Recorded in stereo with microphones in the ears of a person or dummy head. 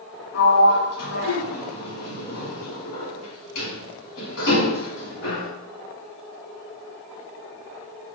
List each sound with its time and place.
0.3 s a sliding door: 75° left (ahead or behind), 0.9 m